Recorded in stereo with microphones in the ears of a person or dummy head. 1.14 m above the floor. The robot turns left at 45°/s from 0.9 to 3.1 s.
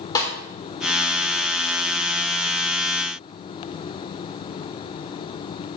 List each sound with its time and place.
0.1 s a snare drum: 20° left (ahead or behind), 4 m